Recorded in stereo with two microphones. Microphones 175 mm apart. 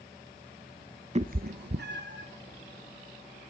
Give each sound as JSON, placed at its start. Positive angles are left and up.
{"t": 1.1, "sound": "a cat meowing", "side_deg": -35, "distance_m": 0.6}